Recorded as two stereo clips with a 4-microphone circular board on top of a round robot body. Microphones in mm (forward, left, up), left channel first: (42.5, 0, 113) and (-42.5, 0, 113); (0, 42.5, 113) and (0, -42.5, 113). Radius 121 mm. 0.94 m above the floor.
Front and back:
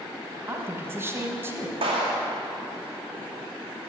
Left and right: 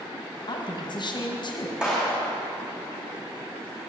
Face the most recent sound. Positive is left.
turn(degrees=-170)